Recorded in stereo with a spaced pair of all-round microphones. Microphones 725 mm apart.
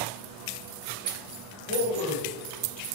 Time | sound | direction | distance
1.7 | a man speaking | 50° right (ahead or behind) | 1.9 m